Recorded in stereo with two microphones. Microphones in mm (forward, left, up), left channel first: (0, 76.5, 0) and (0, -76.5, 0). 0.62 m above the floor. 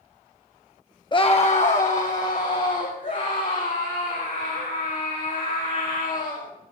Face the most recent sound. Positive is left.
turn(degrees=60)  # may be behind; listen again after turning